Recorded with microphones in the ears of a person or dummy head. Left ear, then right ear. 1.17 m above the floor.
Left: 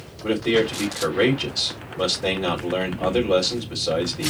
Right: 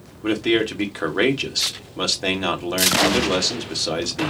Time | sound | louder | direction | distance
0.2 | a man speaking | even | 75° right (ahead or behind) | 1.6 m